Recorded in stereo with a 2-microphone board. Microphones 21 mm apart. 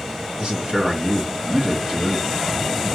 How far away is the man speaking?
About 2 m.